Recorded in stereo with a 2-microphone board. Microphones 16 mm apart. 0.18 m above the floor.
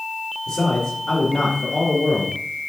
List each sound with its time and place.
0.5 s a man speaking: 50° left (ahead or behind), 2 m